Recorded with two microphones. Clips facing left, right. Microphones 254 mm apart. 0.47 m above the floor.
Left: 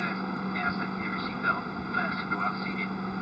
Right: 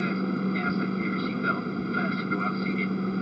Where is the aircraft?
30° right (ahead or behind).